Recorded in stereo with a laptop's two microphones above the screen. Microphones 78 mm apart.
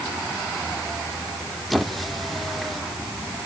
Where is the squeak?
Centre (ahead or behind), 1.1 m.